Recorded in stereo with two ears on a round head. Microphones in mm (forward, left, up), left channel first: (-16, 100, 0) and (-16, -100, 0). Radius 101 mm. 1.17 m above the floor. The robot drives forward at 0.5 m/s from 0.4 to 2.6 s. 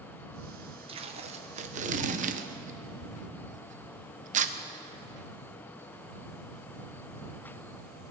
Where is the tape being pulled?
25° right (ahead or behind), 1.0 m; by 4.5 s 35° right (ahead or behind), 0.8 m.